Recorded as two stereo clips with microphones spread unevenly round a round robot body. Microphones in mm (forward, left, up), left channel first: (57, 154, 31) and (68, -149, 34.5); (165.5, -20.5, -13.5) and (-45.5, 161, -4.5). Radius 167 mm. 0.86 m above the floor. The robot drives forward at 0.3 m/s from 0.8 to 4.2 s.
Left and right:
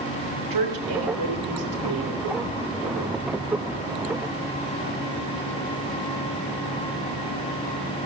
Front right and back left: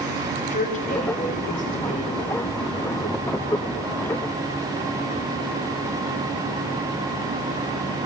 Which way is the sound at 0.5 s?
110° right.